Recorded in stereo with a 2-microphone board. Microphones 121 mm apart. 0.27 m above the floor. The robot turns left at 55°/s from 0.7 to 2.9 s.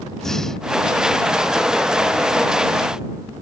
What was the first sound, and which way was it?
Breathing, 5° left (ahead or behind).